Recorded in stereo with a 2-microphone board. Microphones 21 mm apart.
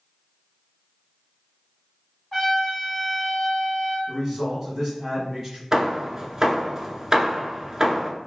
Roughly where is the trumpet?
Left.